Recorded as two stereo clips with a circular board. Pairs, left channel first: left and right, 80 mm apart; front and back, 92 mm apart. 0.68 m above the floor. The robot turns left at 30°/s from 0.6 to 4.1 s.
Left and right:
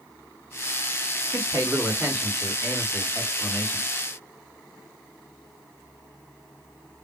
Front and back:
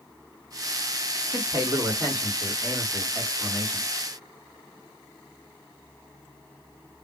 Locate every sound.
1.3 s a man speaking: 145° right, 1.7 m; by 3.9 s 140° left, 1.7 m